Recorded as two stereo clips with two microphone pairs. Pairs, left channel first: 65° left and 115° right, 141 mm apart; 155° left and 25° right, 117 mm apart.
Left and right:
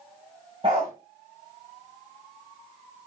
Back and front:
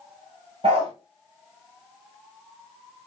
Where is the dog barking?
60° right, 7 m.